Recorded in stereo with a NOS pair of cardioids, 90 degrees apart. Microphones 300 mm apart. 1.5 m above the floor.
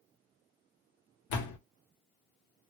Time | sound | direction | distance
1.3 | a door slam | 70° left | 1.0 m